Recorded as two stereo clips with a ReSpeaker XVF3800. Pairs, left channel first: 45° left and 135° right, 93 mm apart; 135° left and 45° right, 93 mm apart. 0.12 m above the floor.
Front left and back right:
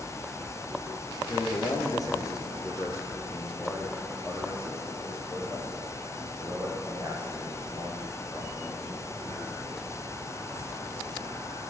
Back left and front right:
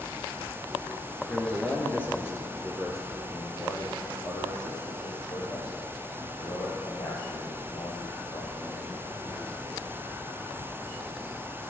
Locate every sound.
1.3 s a man speaking: 60° left, 1.9 m; by 10.0 s 120° left, 5.5 m